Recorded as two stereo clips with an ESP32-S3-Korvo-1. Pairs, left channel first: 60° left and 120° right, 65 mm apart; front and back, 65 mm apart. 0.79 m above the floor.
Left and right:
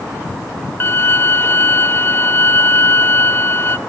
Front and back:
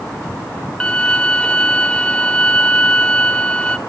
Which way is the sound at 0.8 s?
60° left.